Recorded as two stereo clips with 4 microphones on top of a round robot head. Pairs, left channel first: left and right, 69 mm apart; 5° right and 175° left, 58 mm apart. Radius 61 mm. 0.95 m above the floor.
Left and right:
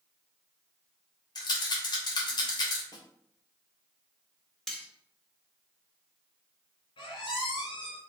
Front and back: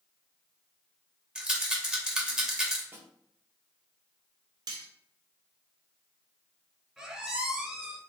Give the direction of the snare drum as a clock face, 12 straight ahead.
8 o'clock.